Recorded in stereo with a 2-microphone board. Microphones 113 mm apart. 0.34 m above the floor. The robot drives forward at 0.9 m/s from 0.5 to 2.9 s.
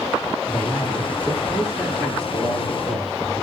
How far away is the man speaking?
About 10 m.